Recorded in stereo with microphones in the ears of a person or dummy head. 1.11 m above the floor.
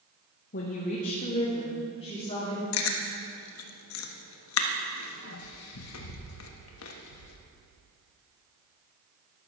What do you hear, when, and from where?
0.5 s a woman speaking: 45° left (ahead or behind), 1.0 m; by 2.6 s 25° left (ahead or behind), 3 m
2.7 s chewing: 80° left, 1.1 m